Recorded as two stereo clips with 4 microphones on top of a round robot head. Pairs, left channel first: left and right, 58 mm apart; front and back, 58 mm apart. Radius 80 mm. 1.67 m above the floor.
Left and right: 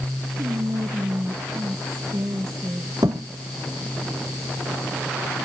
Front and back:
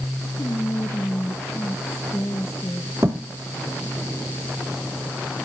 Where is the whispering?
45° right, 1.2 m.